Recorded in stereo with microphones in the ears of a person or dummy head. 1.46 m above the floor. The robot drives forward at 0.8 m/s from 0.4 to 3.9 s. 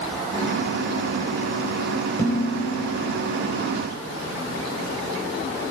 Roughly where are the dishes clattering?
Centre.